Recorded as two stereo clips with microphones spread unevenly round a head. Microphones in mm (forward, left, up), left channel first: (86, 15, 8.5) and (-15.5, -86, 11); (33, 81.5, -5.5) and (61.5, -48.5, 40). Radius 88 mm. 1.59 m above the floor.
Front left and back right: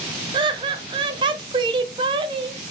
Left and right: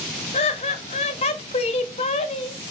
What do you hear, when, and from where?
0.3 s laughter: 170° left, 0.6 m